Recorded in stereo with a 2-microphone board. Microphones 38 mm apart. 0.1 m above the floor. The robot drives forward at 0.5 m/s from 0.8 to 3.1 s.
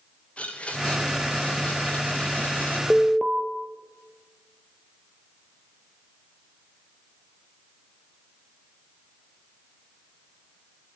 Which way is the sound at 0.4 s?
40° left (ahead or behind).